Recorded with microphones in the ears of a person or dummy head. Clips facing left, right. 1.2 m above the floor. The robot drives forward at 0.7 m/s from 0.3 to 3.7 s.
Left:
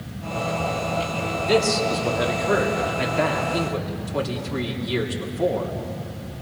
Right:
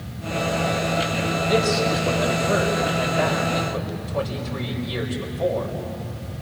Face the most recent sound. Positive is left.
turn(degrees=65)  # may be behind; listen again after turning